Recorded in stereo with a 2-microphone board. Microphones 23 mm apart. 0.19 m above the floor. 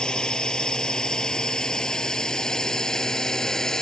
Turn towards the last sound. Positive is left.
turn(degrees=30)  # may be behind; listen again after turning